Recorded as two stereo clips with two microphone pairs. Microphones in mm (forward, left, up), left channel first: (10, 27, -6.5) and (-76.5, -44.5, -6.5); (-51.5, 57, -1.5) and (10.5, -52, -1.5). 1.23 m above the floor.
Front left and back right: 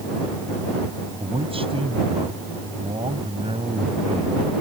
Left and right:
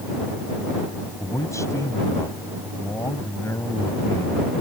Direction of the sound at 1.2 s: 175° right.